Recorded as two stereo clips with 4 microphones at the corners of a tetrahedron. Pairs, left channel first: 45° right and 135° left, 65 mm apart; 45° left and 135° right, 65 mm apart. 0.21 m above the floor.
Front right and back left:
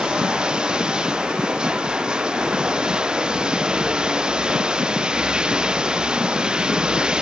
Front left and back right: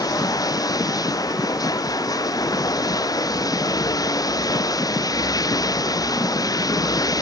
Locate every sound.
0.0 s running water: 60° left